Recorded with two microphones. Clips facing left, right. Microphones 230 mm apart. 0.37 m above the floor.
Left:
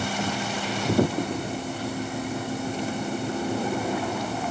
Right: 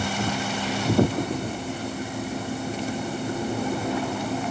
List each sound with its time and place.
Only background noise.